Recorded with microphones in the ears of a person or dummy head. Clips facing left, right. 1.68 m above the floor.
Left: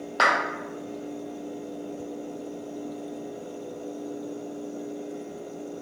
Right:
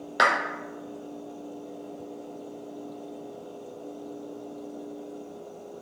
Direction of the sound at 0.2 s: 20° right (ahead or behind).